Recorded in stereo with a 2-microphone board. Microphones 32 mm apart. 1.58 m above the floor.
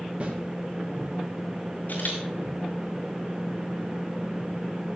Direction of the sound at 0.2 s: 40° right (ahead or behind).